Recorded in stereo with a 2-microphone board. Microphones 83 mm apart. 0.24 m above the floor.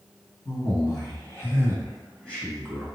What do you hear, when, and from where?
0.5 s a man speaking: 45° left (ahead or behind), 1.6 m; by 2.9 s centre (ahead or behind), 1.5 m